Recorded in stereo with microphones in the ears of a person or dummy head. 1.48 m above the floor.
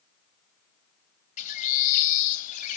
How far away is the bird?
About 0.5 m.